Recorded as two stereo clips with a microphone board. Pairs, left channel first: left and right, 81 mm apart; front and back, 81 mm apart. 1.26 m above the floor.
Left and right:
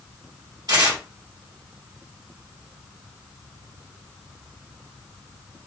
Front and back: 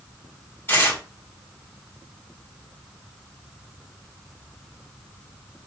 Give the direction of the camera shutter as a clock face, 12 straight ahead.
No camera shutter in this recording.